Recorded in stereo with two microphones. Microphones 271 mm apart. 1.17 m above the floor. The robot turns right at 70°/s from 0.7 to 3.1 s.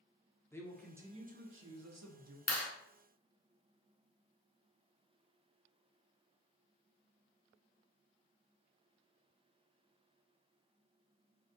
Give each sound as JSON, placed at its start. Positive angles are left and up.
{"t": 0.5, "sound": "a man speaking", "azimuth_deg": 170, "distance_m": 0.5}
{"t": 2.5, "sound": "a clap", "side_deg": 65, "distance_m": 0.6}